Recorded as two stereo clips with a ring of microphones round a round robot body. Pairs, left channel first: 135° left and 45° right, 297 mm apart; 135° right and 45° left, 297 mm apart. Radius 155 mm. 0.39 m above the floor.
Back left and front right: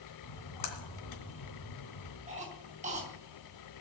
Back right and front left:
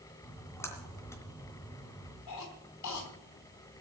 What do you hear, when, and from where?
0.2 s a splash: 145° left, 2.5 m
2.3 s a cough: 110° right, 4 m